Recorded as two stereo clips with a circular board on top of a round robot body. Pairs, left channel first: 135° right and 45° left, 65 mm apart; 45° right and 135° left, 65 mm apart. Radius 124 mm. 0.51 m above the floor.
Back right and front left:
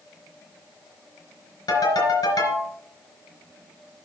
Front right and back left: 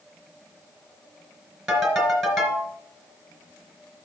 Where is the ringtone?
140° right, 4 m.